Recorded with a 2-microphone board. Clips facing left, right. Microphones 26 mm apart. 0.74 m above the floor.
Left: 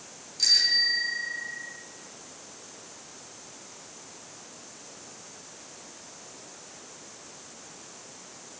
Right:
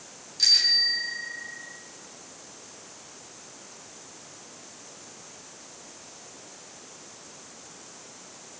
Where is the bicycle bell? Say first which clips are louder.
Right 2 dB; 15° right (ahead or behind), 9 m.